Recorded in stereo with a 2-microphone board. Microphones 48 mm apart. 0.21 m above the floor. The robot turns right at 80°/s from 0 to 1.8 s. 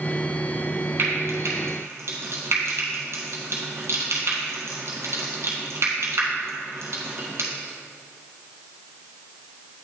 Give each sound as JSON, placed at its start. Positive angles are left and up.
{"t": 1.0, "sound": "frying", "side_deg": -50, "distance_m": 1.7}